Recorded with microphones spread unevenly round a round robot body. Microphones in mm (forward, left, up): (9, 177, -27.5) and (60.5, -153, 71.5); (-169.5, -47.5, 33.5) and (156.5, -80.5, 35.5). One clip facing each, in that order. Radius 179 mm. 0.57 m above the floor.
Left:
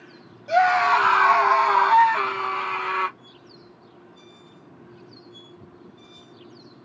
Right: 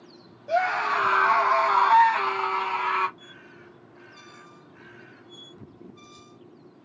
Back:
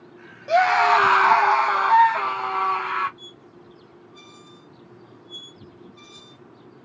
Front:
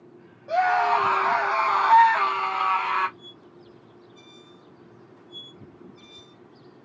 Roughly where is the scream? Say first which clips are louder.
Left 6 dB, back 4 dB; behind left.